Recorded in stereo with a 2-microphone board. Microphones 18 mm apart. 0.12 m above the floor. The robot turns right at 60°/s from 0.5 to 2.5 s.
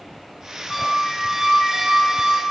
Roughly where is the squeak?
Behind.